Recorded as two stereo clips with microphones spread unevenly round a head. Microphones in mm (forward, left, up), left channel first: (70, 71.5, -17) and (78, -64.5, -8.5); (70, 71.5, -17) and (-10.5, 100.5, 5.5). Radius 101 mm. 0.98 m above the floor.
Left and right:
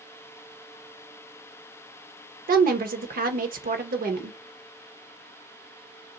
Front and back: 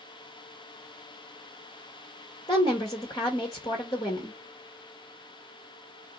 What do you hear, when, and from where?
2.5 s a woman speaking: 70° right, 1.0 m